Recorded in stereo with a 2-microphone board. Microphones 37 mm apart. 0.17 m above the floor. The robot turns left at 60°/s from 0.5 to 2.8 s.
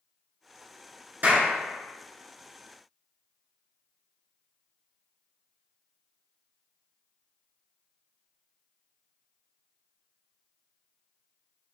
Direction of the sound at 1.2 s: 55° right (ahead or behind).